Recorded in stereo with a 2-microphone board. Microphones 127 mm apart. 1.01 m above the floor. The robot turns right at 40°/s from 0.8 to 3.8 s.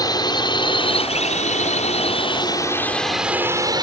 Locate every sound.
0.0 s a drone: 30° left (ahead or behind); by 3.8 s 35° right (ahead or behind)